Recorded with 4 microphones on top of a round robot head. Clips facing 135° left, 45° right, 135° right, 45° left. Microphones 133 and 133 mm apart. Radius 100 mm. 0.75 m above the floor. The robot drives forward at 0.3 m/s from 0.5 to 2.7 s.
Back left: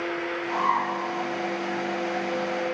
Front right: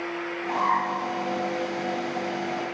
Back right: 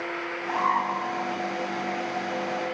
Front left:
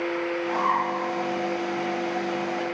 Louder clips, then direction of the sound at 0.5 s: Front right 1 dB, back right 2 dB; 65° right.